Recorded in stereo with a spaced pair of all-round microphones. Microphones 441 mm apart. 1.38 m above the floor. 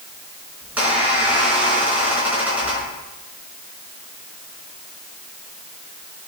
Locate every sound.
0.6 s a squeak: 5° right (ahead or behind), 4 m